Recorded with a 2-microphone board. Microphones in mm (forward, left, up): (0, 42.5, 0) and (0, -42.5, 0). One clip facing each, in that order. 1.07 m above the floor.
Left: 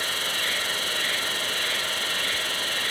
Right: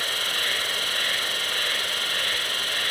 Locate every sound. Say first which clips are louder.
0.0 s an insect: even; 60° right (ahead or behind), 1.3 m